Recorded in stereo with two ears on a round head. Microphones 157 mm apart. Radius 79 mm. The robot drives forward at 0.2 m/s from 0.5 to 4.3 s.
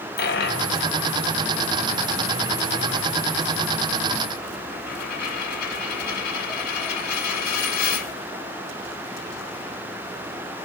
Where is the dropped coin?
60° left (ahead or behind), 1.3 m.